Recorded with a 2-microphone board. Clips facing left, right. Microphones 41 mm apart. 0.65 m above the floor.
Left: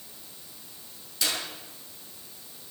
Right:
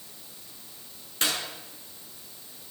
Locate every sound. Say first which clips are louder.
1.2 s a clap: right 2 dB; 45° right (ahead or behind), 7 m